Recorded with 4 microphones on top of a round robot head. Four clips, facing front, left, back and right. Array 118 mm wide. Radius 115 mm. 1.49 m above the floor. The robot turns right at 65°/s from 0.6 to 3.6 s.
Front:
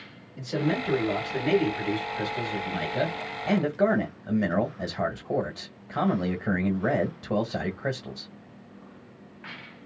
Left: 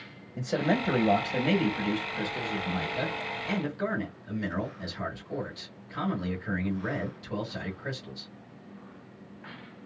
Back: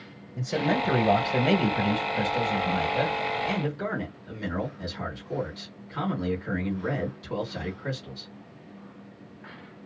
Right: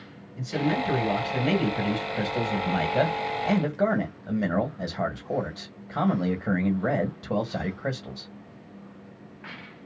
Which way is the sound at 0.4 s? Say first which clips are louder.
Right 1 dB, back 1 dB; 120° left.